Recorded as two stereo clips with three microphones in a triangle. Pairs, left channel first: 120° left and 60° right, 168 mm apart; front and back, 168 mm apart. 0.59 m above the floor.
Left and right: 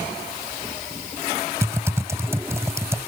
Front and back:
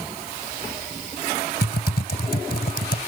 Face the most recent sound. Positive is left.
turn(degrees=15)